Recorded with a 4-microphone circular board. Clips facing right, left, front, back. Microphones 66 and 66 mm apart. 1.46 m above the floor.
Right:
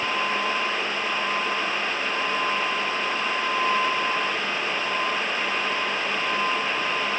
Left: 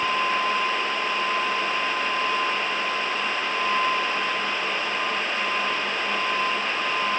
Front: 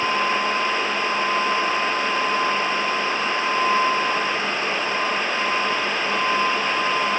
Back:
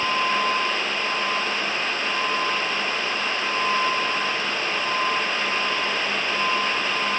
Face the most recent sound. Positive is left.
No sound to turn to.